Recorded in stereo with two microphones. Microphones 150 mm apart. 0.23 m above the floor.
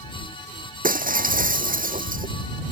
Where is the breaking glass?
70° right (ahead or behind).